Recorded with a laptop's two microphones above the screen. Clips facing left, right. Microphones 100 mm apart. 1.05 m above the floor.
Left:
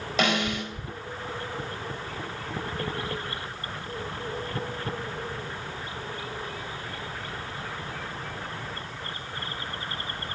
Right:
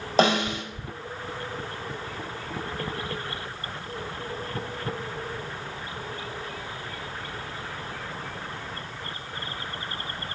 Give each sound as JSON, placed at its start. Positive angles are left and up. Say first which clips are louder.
{"t": 0.2, "sound": "a snare drum", "louder": "right 4 dB", "side_deg": -35, "distance_m": 1.0}